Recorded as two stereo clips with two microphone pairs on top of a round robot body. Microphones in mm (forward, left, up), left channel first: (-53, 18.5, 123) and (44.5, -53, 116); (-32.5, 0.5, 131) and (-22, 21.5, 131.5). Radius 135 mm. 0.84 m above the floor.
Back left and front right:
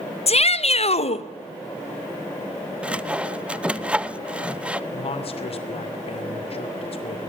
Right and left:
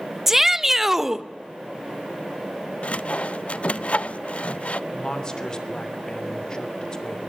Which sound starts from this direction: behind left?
A shout, at 0.3 s.